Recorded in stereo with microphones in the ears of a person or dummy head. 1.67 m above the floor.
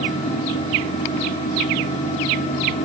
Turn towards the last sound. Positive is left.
turn(degrees=30)  # may be behind; listen again after turning